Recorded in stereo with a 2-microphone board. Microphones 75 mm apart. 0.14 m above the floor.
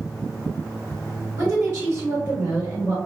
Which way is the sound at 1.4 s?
35° right (ahead or behind).